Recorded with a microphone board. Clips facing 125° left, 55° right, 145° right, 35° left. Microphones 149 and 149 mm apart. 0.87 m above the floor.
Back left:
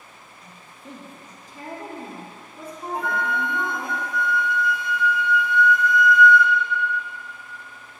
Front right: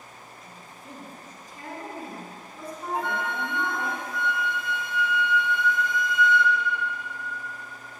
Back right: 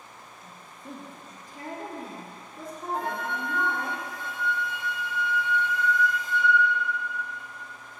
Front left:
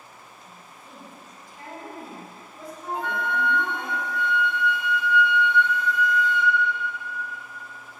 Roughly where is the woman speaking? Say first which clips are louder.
Back left 1 dB, back right 2 dB; behind.